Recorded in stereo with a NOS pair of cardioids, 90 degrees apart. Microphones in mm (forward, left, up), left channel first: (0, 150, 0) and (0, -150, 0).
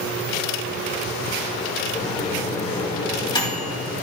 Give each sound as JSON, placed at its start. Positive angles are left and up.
{"t": 1.9, "sound": "a microwave", "azimuth_deg": 15, "distance_m": 2.0}